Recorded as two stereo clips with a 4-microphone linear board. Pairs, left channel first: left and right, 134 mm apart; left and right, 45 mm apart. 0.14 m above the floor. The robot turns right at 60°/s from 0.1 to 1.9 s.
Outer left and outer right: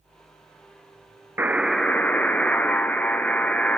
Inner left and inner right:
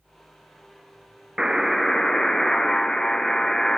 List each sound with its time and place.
1.4 s a buzzer: 20° right, 0.7 m; by 3.8 s 10° left, 0.7 m